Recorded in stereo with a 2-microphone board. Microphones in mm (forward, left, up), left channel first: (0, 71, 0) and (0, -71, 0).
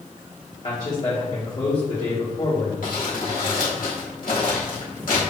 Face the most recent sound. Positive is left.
turn(degrees=70)  # may be behind; listen again after turning